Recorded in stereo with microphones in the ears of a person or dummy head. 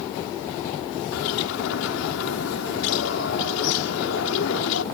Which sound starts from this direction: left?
A bird, at 1.1 s.